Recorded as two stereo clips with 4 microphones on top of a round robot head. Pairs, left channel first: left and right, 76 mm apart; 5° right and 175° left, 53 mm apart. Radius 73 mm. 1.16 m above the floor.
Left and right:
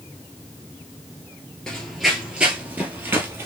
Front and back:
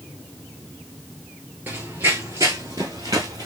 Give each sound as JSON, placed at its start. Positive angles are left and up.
{"t": 1.7, "sound": "running footsteps", "azimuth_deg": 165, "distance_m": 1.2}